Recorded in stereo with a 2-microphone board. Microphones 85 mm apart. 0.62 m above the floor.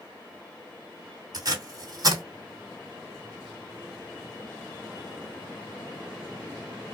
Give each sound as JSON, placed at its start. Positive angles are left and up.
{"t": 1.3, "sound": "tape being pulled", "side_deg": -50, "distance_m": 2.0}